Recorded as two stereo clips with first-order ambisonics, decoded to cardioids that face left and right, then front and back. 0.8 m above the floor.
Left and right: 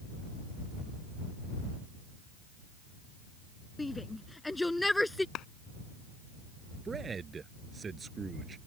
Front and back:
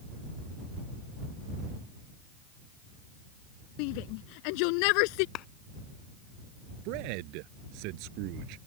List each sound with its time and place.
3.8 s a shout: 10° left; by 5.2 s 5° left
5.3 s a clap: 40° left
6.8 s a man speaking: 165° right